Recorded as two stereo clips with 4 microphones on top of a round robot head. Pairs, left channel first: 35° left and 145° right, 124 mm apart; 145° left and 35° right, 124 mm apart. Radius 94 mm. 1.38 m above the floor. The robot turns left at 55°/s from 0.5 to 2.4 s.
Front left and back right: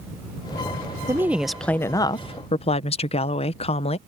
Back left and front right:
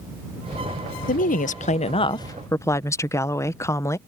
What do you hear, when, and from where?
1.1 s a woman speaking: 150° left; by 4.0 s 75° left